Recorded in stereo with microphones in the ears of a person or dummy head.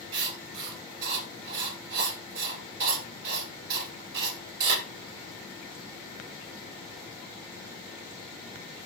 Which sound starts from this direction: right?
Writing, at 0.1 s.